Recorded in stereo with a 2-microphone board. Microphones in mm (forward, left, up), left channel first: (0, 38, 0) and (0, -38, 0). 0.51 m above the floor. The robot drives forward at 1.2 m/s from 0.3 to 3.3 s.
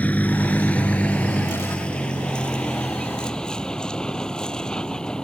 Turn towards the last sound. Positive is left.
turn(degrees=10)  # may be behind; listen again after turning